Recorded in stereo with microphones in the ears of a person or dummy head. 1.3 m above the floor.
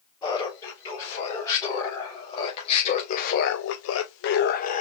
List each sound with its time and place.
0.2 s laughter: 15° left (ahead or behind), 2 m; by 4.8 s 40° left (ahead or behind), 0.7 m